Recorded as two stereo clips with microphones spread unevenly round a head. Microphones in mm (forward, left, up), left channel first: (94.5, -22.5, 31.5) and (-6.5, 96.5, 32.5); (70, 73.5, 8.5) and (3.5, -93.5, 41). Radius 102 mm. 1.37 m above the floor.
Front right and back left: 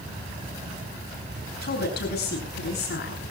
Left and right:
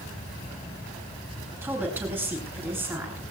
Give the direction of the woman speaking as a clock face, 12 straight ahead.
1 o'clock.